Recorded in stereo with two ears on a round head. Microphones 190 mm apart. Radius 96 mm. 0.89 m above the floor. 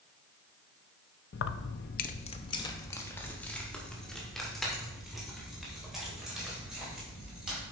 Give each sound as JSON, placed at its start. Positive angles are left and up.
{"t": 1.3, "sound": "keys jangling", "side_deg": 55, "distance_m": 0.5}